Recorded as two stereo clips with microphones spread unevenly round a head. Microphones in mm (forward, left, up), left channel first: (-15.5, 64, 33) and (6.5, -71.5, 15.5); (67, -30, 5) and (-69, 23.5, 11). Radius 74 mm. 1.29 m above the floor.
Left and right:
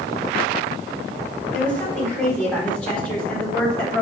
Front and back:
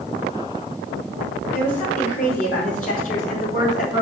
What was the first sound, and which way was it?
A woman speaking, 15° left.